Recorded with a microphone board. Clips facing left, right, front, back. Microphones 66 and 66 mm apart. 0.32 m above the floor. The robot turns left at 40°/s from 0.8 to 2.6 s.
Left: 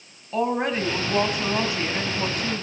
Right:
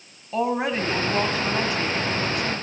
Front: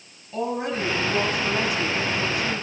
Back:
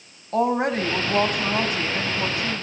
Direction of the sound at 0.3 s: 175° right.